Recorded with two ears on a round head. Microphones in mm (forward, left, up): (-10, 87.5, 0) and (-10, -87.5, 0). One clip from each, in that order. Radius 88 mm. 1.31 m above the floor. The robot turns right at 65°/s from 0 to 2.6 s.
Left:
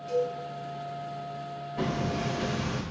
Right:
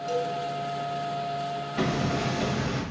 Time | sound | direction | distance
0.1 | a cowbell | 40° right (ahead or behind) | 1.9 m
1.8 | hammering | 40° right | 1.2 m